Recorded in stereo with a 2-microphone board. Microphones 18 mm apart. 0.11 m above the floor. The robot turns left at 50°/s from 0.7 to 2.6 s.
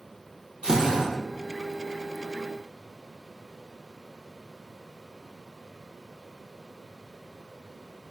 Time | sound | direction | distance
0.6 | a drill | 55° right (ahead or behind) | 1.4 m